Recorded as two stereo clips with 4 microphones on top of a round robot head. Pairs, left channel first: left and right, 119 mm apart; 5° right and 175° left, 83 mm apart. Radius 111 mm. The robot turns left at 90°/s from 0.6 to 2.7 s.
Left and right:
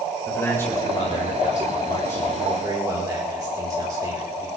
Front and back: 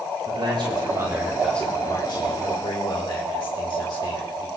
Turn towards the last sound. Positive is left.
turn(degrees=-30)